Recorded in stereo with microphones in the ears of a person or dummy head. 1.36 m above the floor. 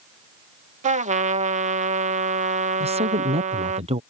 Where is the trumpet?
40° right (ahead or behind).